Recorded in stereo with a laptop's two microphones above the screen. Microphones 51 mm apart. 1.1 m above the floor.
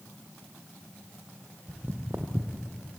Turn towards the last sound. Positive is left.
turn(degrees=-55)  # may be behind; listen again after turning